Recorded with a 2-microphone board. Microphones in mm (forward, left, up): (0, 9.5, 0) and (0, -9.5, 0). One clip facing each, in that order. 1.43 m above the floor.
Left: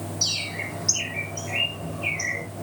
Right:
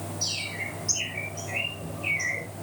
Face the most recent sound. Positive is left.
turn(degrees=35)  # may be behind; listen again after turning